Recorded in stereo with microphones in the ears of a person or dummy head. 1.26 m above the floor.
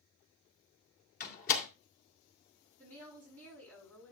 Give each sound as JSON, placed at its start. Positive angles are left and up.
{"t": 1.2, "sound": "a door slam", "side_deg": 50, "distance_m": 2.0}
{"t": 2.8, "sound": "a woman speaking", "side_deg": 5, "distance_m": 8.5}